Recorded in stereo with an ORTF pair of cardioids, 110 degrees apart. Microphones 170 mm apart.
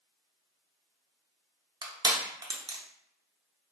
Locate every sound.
1.8 s crushing: 25° right, 0.8 m